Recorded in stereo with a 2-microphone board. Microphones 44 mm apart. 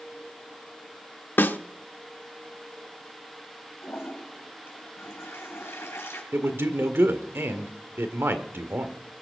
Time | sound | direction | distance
1.4 | a snare drum | 55° left (ahead or behind) | 0.8 m
3.8 | a toilet flushing | 80° left | 3.5 m
6.3 | a man speaking | 70° right (ahead or behind) | 1.7 m